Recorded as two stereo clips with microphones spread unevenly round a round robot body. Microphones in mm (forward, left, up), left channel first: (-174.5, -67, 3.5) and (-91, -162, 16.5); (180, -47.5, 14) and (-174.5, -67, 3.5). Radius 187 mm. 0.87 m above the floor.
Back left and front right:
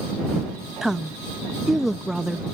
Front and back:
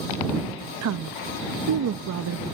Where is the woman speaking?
140° right.